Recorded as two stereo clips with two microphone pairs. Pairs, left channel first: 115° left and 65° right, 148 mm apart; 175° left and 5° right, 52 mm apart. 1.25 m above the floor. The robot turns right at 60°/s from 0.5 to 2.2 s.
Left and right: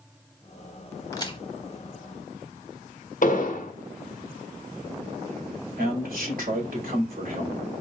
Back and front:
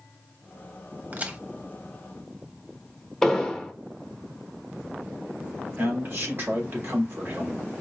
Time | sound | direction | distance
1.1 | a crack | 50° left | 1.0 m
3.2 | an explosion | 95° left | 1.0 m
5.8 | a man speaking | 45° right | 3 m